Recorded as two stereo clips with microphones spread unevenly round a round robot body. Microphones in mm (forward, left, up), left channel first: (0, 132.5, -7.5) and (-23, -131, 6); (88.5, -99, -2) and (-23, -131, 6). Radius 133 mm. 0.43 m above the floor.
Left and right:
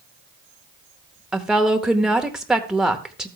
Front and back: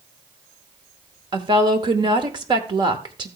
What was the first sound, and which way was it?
A woman speaking, 175° left.